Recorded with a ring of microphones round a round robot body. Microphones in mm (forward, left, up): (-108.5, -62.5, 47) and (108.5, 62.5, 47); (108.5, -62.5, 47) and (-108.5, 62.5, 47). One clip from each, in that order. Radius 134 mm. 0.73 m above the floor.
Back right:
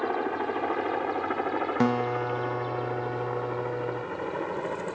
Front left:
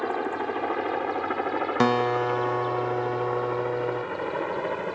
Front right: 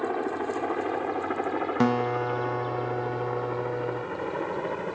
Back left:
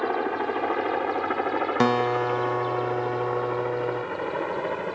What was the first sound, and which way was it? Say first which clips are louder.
A helicopter: front left 1 dB, back left 3 dB; 110° left.